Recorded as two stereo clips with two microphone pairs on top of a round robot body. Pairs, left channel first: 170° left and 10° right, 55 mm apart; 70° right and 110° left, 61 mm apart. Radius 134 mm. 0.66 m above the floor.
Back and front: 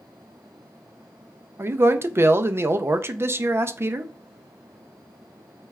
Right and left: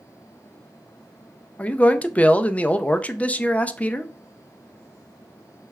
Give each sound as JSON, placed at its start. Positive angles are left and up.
{"t": 1.6, "sound": "a man speaking", "azimuth_deg": -25, "distance_m": 0.5}